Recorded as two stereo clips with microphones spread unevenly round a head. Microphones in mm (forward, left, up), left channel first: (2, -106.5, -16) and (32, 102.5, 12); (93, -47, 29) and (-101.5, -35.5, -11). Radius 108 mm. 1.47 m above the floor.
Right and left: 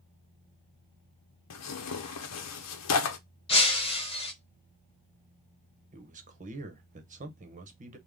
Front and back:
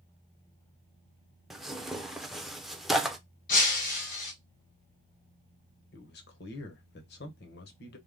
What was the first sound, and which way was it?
Tearing paper, 95° right.